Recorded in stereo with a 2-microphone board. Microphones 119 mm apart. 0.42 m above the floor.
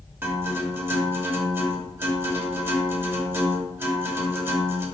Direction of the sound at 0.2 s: 20° right (ahead or behind).